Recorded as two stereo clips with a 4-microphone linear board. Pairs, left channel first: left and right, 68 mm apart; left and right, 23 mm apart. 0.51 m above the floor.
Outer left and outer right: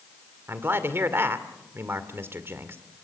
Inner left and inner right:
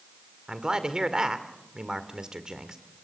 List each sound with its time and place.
0.5 s a man speaking: 35° right (ahead or behind), 1.9 m